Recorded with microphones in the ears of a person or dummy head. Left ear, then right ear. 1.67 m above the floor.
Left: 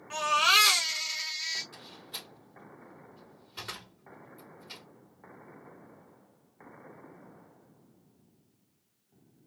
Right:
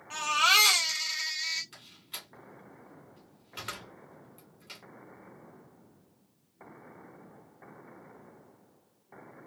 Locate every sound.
0.1 s a baby crying: centre (ahead or behind), 1.9 m
1.7 s a door slam: 20° right (ahead or behind), 2.5 m